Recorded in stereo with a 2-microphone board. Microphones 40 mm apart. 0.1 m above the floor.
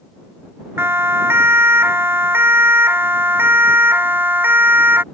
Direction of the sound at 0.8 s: 70° right (ahead or behind).